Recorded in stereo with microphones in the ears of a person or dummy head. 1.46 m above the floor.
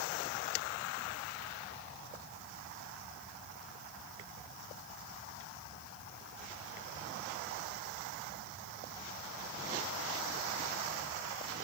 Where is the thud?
No thud in this recording.